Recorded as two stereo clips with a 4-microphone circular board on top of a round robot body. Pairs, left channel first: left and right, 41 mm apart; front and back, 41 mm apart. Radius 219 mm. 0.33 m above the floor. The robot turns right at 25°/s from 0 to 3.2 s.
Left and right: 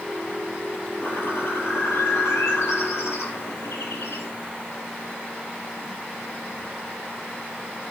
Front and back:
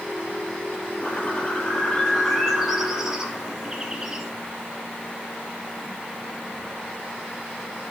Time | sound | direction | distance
1.0 | a bird | 50° left | 4.5 m